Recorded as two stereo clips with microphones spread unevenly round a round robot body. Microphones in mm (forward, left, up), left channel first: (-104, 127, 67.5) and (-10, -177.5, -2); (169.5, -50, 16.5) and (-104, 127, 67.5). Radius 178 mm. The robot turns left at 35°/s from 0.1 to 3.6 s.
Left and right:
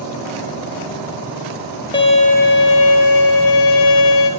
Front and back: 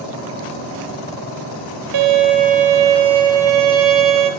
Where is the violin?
175° right, 4 m; by 4.3 s 125° left, 4 m.